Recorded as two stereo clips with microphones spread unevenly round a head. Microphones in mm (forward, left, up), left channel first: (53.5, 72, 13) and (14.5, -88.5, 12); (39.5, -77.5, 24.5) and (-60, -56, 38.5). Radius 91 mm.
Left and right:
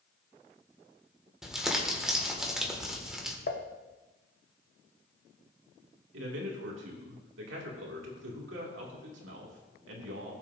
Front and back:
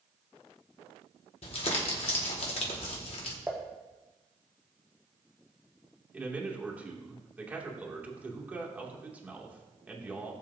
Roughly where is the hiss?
No hiss in this recording.